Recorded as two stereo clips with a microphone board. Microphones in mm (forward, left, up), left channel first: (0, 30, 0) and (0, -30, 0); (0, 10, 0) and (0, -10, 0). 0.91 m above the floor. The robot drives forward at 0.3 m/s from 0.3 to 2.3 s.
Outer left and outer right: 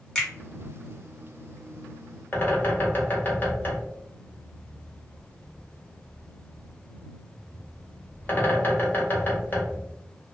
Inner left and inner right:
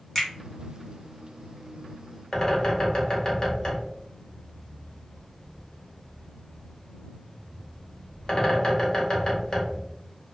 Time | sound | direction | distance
0.1 | a finger snap | 10° left (ahead or behind) | 1.1 m
2.3 | a bird | 35° left (ahead or behind) | 1.0 m